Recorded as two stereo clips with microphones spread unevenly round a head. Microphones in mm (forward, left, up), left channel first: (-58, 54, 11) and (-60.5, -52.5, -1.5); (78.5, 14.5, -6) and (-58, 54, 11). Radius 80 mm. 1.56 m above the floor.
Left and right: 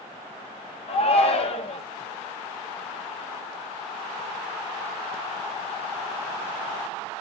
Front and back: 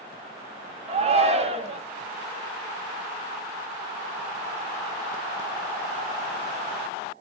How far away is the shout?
About 1.7 m.